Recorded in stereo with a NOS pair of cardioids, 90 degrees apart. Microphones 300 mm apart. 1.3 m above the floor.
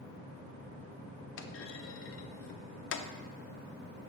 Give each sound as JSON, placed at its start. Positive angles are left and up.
{"t": 1.4, "sound": "a clunk", "azimuth_deg": 45, "distance_m": 0.6}